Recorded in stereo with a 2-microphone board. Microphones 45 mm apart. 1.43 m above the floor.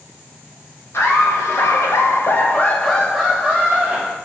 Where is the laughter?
70° left (ahead or behind), 1.0 m; by 4.2 s 20° right (ahead or behind), 1.1 m.